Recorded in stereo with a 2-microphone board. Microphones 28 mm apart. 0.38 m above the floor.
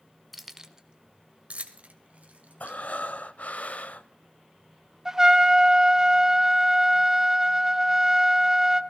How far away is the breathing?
About 0.6 m.